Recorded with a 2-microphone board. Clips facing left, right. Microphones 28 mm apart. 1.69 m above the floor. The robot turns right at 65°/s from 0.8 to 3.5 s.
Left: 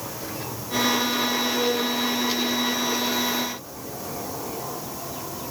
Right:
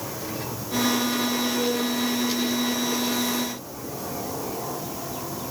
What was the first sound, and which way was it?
Only background noise.